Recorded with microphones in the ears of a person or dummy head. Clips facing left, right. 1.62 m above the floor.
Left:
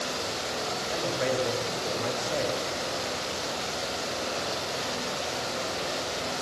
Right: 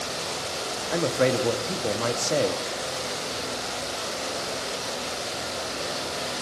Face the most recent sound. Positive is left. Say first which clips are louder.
# right 7 dB
turn(degrees=-60)  # may be behind; listen again after turning